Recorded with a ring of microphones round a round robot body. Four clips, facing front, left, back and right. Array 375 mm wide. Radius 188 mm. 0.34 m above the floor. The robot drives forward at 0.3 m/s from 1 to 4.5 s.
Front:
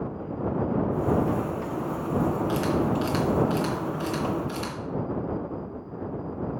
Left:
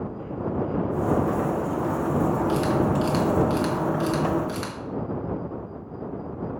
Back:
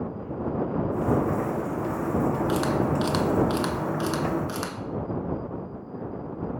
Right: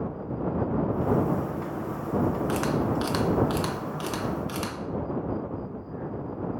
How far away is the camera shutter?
About 0.7 m.